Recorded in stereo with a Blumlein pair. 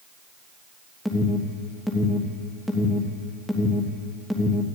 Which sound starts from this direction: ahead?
An alarm, at 1.1 s.